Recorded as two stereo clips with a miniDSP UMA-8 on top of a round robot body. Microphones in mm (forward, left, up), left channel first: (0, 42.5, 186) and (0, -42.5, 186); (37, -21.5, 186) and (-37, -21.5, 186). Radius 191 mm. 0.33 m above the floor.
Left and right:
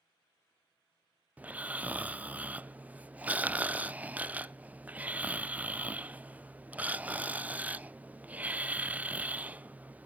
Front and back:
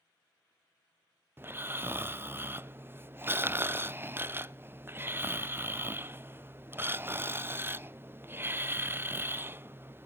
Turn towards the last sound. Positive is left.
turn(degrees=-150)